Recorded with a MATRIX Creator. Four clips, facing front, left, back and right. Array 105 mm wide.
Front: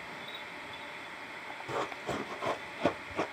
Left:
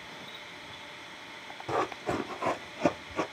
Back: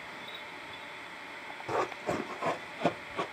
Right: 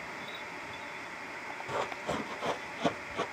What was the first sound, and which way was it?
Running footsteps, 130° left.